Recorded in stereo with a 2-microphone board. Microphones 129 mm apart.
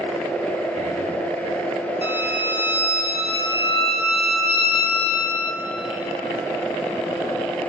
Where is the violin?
50° left (ahead or behind), 3 m.